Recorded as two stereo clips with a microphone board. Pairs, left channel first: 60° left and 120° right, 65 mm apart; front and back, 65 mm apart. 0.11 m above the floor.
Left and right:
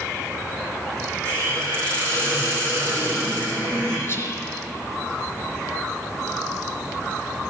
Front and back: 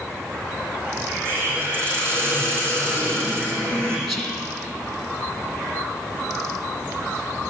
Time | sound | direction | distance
1.2 | a hiss | 125° left | 5.5 m
4.1 | whispering | 95° left | 2 m